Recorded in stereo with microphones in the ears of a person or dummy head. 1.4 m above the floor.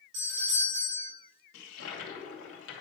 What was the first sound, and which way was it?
A doorbell, 80° right.